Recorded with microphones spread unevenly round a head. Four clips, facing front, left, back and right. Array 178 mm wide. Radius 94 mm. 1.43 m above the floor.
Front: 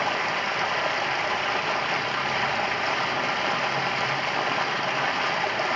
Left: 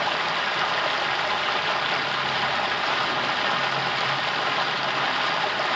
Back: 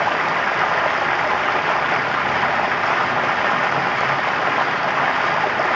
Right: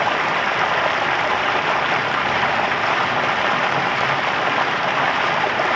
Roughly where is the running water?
Behind right.